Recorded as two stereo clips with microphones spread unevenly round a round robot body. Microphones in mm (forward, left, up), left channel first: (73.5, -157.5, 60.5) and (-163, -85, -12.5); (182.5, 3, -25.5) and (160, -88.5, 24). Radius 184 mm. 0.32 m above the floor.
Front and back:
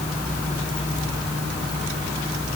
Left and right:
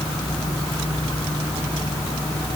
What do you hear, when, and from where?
Only background noise.